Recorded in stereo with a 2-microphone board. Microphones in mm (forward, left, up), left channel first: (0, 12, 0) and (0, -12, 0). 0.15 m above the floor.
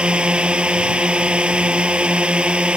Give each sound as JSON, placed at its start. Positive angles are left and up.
{"t": 0.0, "sound": "a drone", "side_deg": -50}